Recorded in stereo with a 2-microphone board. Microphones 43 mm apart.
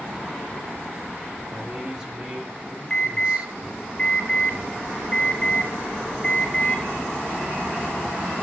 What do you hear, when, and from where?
1.5 s a man speaking: 15° right (ahead or behind), 4 m; by 3.5 s 30° right (ahead or behind), 3.5 m
2.9 s an alarm: 25° left (ahead or behind), 3.5 m